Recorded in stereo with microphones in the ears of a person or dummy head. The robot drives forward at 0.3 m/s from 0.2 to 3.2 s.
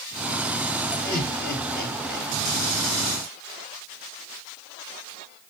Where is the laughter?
50° left (ahead or behind), 3 m; by 2.3 s 55° left (ahead or behind), 2.5 m.